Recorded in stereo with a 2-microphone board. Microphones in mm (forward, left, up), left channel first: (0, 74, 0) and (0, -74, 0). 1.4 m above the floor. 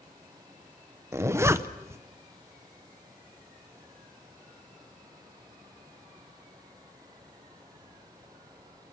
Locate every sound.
1.1 s a zipper: 15° right (ahead or behind), 0.7 m